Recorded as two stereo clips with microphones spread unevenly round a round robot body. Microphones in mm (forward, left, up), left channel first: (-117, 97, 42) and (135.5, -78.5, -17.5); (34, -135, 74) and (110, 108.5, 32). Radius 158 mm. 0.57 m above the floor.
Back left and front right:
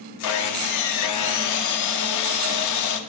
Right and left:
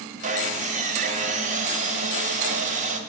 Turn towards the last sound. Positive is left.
turn(degrees=120)